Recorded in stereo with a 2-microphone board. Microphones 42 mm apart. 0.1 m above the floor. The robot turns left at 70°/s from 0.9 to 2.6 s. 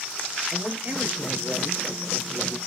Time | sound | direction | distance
0.5 | a man speaking | 95° right | 2.5 m